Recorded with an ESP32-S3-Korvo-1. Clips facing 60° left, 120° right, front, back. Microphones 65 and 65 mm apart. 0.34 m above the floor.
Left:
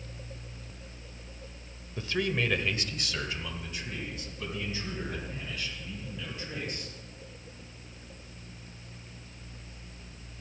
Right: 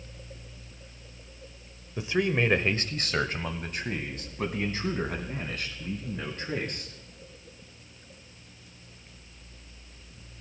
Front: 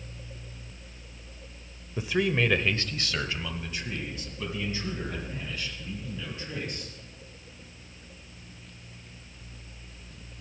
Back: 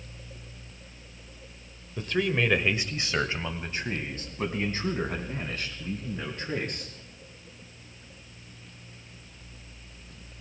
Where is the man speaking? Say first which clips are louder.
Right 4 dB, front 1 dB; 60° right, 1.1 m; by 6.9 s 150° right, 4.5 m.